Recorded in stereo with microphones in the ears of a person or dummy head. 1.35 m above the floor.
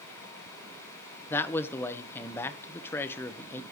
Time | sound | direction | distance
1.3 | a man speaking | 15° left (ahead or behind) | 0.9 m